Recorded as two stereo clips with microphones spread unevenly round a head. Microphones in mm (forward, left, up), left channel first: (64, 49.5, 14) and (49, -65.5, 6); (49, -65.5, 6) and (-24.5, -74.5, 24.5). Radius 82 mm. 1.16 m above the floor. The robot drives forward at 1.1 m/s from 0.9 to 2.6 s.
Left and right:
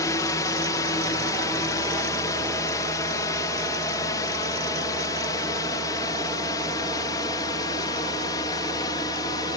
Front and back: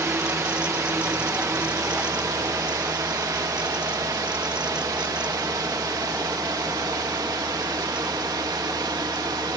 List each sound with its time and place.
0.0 s a drone: 135° left; by 9.6 s 145° left